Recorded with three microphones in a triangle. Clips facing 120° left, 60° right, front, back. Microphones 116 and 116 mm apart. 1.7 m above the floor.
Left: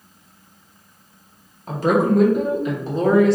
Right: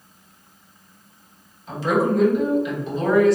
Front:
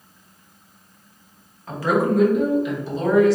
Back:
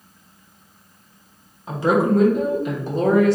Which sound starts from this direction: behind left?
A woman speaking, at 1.7 s.